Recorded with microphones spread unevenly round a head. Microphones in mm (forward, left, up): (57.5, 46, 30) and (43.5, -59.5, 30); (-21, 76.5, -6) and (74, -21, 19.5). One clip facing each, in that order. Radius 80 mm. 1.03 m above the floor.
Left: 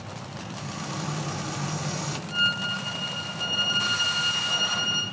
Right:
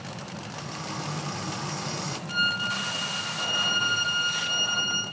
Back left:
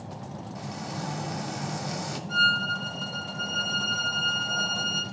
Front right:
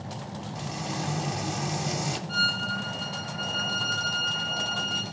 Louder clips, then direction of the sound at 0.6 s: Left 2 dB, front right 2 dB; 5° left.